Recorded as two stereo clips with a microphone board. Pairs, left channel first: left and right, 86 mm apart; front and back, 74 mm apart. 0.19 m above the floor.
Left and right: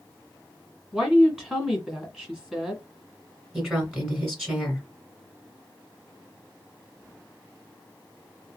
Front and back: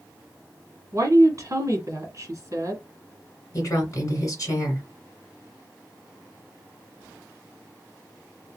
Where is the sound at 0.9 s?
165° right, 1.6 m.